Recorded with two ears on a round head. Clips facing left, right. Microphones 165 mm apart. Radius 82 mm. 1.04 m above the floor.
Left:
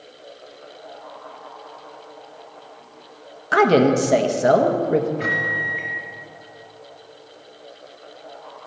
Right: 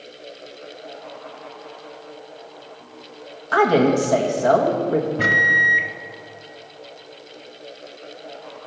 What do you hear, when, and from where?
3.5 s a woman speaking: 25° left (ahead or behind), 1.1 m
5.2 s a microwave: 65° right (ahead or behind), 1.1 m